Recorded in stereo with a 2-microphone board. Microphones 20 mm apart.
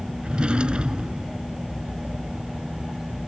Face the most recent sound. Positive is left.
turn(degrees=-60)  # may be behind; listen again after turning